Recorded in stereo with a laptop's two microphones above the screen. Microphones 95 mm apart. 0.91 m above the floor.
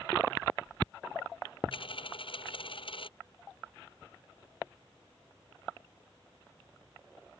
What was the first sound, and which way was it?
A dropped coin, 65° left (ahead or behind).